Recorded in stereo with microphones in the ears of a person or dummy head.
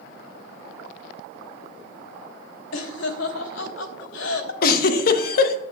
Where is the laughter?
80° left, 1.4 m.